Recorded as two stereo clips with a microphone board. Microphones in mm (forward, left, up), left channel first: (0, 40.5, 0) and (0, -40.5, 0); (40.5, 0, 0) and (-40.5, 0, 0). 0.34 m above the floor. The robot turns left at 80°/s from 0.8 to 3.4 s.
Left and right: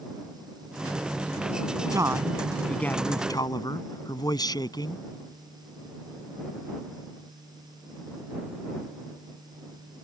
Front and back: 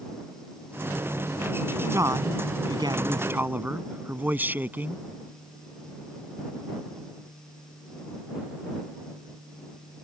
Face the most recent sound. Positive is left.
turn(degrees=115)